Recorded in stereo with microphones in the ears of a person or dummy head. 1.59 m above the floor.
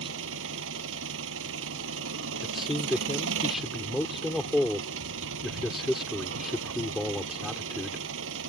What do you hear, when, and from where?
0.0 s an engine running: 80° right
2.4 s a man speaking: 5° right (ahead or behind)